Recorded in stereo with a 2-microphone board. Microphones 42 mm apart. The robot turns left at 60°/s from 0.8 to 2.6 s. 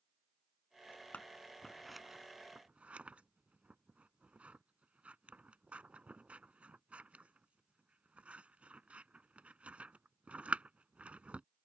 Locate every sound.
1.1 s scissors: 30° left (ahead or behind); by 11.4 s 35° right (ahead or behind)